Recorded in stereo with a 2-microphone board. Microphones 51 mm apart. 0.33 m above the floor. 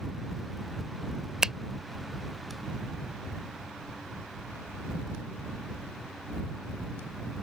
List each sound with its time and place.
1.4 s a finger snap: 15° right (ahead or behind)